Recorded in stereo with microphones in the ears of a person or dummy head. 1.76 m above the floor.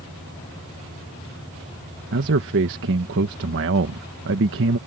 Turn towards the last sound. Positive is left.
turn(degrees=-65)  # may be behind; listen again after turning